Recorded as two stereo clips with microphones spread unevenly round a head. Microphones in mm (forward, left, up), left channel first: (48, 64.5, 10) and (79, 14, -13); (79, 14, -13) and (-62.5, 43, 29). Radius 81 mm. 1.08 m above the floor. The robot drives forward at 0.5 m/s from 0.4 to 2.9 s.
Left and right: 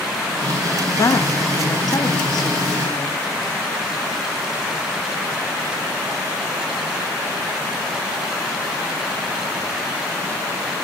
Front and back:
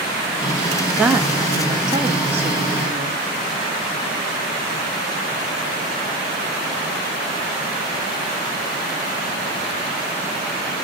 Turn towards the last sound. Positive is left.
turn(degrees=125)